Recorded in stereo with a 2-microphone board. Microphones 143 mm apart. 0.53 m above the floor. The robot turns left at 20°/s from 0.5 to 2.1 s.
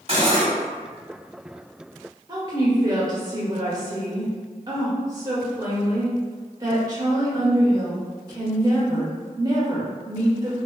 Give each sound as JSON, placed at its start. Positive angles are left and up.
{"t": 0.1, "sound": "cutlery clinking", "side_deg": -45, "distance_m": 1.0}
{"t": 2.3, "sound": "a woman speaking", "side_deg": -25, "distance_m": 1.1}